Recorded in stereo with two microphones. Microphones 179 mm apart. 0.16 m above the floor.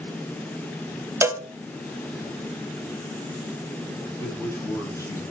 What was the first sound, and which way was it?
A cowbell, 15° right (ahead or behind).